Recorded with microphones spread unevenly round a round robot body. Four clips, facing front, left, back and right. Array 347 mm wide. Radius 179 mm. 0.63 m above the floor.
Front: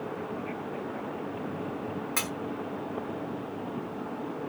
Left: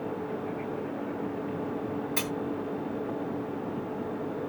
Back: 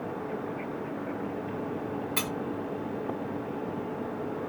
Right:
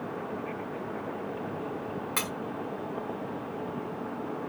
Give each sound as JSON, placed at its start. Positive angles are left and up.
{"t": 2.2, "sound": "cutlery clinking", "azimuth_deg": -65, "distance_m": 1.8}